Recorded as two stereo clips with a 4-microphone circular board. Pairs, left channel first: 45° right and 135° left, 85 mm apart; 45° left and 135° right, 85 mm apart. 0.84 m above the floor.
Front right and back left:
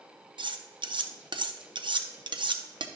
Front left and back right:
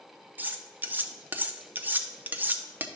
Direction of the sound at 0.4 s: 155° left.